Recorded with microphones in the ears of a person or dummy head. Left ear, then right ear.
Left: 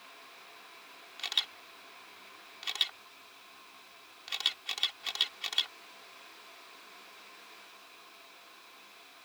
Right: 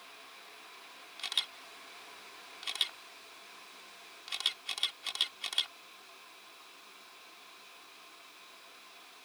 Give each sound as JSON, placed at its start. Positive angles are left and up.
{"t": 1.2, "sound": "a camera shutter", "side_deg": 10}